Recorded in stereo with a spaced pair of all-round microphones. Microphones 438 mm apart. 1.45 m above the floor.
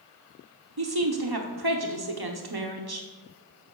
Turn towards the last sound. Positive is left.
turn(degrees=-55)  # may be behind; listen again after turning